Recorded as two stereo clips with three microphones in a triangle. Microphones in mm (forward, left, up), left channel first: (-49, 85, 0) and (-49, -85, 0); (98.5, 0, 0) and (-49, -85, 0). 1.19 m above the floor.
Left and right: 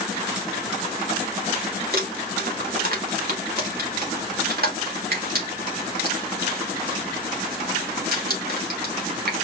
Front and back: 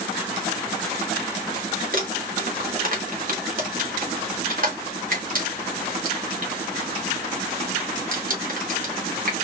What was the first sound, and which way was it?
Crumpling, 115° right.